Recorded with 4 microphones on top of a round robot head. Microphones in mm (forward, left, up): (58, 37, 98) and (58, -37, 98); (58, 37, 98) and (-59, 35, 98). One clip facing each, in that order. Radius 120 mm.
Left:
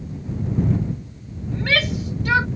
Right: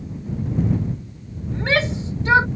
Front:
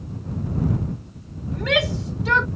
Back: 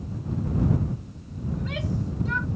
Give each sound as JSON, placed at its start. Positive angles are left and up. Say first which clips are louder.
{"t": 1.5, "sound": "a shout", "louder": "right 1 dB, front 9 dB", "azimuth_deg": -30}